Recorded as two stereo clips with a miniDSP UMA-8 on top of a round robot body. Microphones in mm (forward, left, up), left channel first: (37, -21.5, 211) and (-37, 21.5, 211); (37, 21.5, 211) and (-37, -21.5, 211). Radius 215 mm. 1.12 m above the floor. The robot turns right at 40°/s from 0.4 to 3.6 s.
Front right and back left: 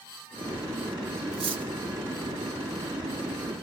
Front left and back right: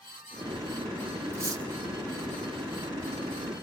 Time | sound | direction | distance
1.3 | cutlery clinking | 150° left | 1.7 m